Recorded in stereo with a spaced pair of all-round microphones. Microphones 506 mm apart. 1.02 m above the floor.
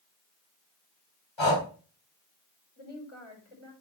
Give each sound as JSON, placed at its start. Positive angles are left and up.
{"t": 1.4, "sound": "breathing", "side_deg": 65, "distance_m": 1.6}
{"t": 2.8, "sound": "a woman speaking", "side_deg": 80, "distance_m": 5.0}